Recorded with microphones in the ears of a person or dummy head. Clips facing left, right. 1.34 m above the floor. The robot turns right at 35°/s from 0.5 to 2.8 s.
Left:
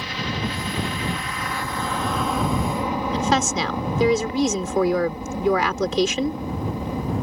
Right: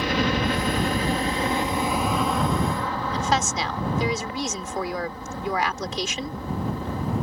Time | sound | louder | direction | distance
0.0 | a helicopter | right 5 dB | 65° right | ?
3.1 | a woman speaking | left 3 dB | 65° left (ahead or behind) | ?